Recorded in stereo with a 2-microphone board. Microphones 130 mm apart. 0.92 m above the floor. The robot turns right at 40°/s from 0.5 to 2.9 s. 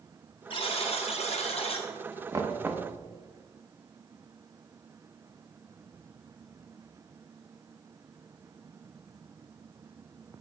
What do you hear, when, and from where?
0.5 s a buzzer: 60° left, 1.1 m; by 1.9 s 115° left, 1.1 m
2.3 s knocking: 30° right (ahead or behind), 0.7 m; by 2.9 s 10° right (ahead or behind), 0.7 m